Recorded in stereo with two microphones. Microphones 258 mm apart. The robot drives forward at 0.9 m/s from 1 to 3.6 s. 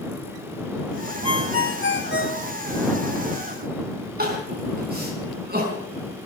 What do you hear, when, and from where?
1.2 s a ringtone: 65° left (ahead or behind), 0.8 m; by 2.5 s 35° left (ahead or behind), 1.4 m
4.2 s crying: 35° right (ahead or behind), 4.5 m